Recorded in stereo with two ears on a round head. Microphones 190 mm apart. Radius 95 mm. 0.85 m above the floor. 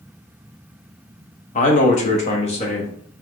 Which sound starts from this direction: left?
A man speaking, at 1.6 s.